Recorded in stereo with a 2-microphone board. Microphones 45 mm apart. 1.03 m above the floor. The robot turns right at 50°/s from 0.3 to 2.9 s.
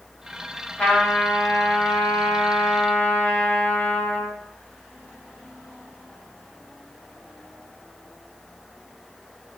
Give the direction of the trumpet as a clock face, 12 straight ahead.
11 o'clock.